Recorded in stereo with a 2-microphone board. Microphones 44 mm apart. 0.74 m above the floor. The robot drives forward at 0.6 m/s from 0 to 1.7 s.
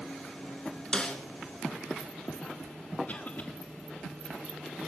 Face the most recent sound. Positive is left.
turn(degrees=40)  # may be behind; listen again after turning